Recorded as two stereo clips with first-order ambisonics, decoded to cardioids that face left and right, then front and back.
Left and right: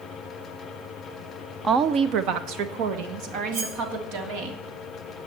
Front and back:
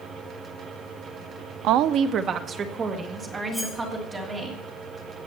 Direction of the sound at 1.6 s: 160° right.